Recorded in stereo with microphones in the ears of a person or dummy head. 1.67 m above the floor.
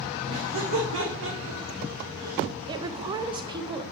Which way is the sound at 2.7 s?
25° right (ahead or behind).